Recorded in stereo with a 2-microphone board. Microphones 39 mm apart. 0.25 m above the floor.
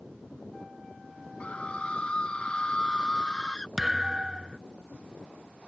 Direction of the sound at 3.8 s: 15° right (ahead or behind).